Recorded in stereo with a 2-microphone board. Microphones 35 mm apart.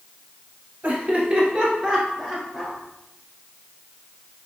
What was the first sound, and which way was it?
Laughter, 40° right (ahead or behind).